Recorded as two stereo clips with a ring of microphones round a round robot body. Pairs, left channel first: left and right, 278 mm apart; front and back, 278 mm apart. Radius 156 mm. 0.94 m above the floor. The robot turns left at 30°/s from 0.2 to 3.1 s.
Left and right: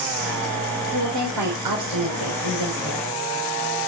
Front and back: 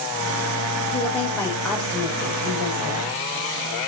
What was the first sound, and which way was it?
A woman speaking, 65° right.